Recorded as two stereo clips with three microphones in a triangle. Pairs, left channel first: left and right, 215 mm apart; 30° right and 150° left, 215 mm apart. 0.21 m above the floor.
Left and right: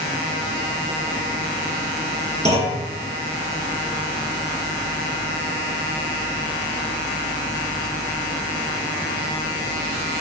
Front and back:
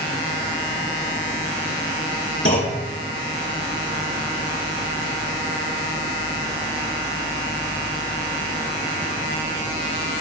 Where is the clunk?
35° right, 3.5 m.